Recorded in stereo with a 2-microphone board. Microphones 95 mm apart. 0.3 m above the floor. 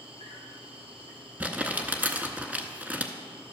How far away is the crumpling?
About 0.7 m.